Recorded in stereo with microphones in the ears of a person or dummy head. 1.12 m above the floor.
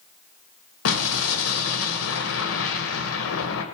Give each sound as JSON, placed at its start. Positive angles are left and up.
{"t": 0.8, "sound": "an explosion", "side_deg": 75, "distance_m": 2.0}